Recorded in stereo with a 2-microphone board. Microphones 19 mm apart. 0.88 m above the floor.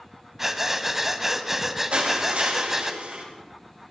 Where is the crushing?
85° right, 4.5 m.